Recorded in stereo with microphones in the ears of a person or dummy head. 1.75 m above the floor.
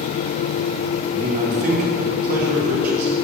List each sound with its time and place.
1.1 s a man speaking: 45° right (ahead or behind), 1.1 m